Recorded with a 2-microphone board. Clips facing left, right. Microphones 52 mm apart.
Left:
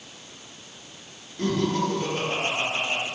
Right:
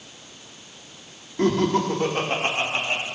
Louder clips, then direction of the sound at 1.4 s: Right 4 dB; 50° right (ahead or behind).